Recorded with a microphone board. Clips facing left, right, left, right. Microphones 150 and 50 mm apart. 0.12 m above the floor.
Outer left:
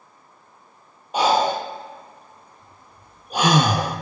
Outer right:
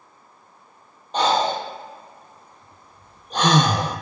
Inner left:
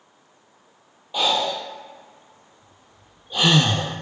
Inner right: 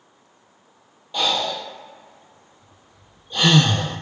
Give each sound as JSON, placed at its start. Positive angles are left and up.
{"t": 1.1, "sound": "breathing", "side_deg": 10, "distance_m": 0.8}